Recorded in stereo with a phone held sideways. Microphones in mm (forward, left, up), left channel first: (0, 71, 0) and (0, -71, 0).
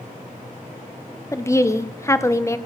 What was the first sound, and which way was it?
A woman speaking, 20° left (ahead or behind).